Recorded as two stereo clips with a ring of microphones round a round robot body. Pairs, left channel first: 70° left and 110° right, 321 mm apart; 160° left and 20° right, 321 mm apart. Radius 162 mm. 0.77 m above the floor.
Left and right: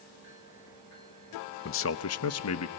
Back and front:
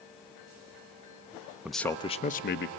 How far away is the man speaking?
About 0.6 m.